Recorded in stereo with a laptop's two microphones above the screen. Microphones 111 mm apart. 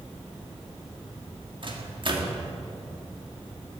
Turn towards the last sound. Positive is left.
turn(degrees=-50)  # may be behind; listen again after turning